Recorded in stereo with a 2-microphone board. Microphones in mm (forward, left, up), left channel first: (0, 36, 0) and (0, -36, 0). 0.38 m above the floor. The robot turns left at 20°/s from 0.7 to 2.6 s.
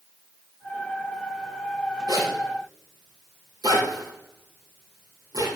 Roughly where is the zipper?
Right.